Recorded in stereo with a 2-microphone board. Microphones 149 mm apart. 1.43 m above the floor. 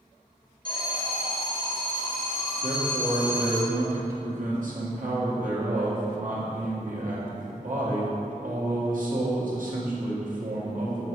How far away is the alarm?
About 1.6 m.